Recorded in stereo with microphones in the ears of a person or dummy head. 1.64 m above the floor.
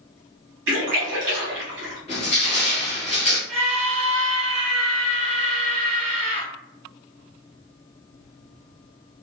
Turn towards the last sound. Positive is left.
turn(degrees=-35)  # may be behind; listen again after turning